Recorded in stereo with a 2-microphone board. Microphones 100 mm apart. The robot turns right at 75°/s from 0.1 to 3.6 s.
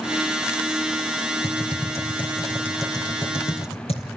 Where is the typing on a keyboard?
70° right (ahead or behind), 3 m; by 4.1 s 90° left, 3 m.